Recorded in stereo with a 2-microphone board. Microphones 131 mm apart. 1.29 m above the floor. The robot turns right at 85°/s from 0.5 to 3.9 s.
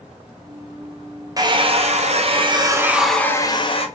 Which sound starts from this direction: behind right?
A hair dryer, at 1.4 s.